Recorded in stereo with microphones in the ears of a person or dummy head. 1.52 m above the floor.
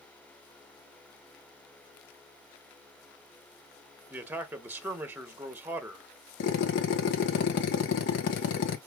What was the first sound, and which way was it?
A man speaking, 10° right (ahead or behind).